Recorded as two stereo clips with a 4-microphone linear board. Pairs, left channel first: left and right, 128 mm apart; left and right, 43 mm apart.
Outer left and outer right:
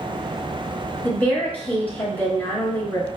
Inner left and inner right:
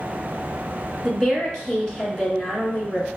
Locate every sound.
1.0 s a woman speaking: 10° left (ahead or behind), 2.5 m